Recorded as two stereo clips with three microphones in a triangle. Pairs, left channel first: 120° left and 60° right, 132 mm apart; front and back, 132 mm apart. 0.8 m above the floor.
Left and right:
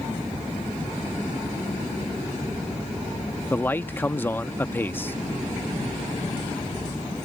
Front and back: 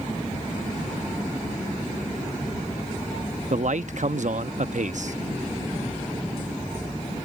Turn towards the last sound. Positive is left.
turn(degrees=-165)